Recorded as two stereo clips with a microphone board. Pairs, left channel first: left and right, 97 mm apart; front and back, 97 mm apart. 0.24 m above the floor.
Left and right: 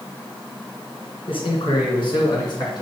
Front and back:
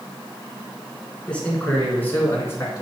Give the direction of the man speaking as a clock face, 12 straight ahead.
9 o'clock.